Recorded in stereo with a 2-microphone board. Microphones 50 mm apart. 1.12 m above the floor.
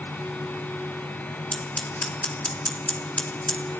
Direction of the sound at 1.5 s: 30° left (ahead or behind).